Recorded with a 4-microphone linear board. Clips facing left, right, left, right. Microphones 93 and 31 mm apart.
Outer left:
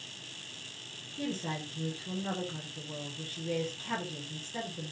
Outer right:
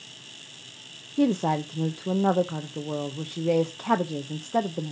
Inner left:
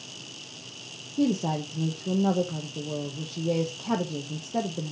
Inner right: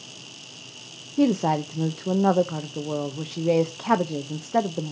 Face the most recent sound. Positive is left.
turn(degrees=-65)  # may be behind; listen again after turning